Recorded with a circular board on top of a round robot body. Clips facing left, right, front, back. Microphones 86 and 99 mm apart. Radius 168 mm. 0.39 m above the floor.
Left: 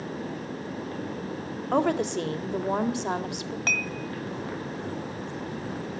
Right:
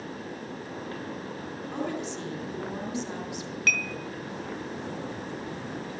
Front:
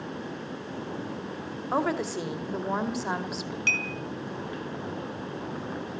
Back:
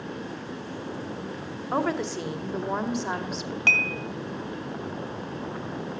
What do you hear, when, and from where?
1.7 s a woman speaking: 85° left, 2 m
3.7 s dishes clattering: 145° left, 3 m